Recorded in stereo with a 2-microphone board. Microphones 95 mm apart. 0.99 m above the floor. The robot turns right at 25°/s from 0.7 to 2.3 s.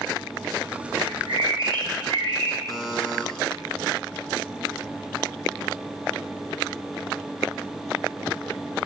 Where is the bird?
95° right, 2 m; by 2.6 s 65° right, 2 m.